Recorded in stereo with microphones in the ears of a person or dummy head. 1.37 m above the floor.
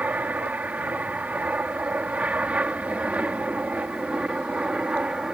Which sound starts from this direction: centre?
An aircraft, at 0.0 s.